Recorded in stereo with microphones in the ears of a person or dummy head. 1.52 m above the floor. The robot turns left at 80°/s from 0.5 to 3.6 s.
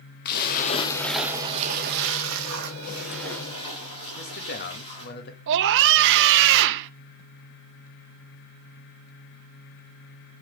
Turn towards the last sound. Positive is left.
turn(degrees=-55)  # may be behind; listen again after turning